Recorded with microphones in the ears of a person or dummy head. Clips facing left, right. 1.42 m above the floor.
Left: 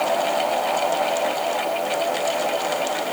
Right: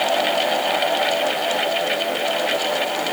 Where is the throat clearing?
I don't hear throat clearing.